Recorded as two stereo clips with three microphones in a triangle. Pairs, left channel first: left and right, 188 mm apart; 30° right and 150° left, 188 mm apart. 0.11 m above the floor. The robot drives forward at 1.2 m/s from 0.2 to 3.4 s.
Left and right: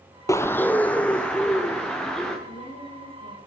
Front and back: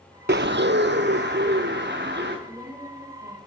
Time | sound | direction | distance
0.3 | a bird | 160° left | 0.5 m
2.5 | a woman speaking | 80° left | 7.5 m